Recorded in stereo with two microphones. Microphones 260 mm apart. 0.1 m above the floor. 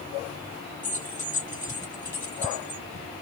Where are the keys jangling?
30° left (ahead or behind), 1.2 m.